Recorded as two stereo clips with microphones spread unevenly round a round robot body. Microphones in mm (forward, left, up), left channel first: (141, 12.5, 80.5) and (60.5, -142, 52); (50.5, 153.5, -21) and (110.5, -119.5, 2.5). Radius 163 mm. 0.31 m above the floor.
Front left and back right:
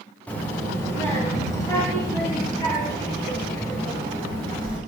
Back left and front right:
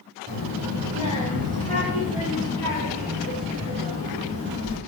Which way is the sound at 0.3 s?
25° right.